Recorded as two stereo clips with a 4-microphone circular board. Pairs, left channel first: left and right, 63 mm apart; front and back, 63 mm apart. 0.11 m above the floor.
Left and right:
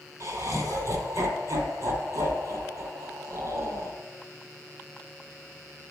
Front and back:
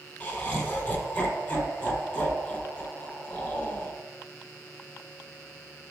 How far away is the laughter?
About 3 m.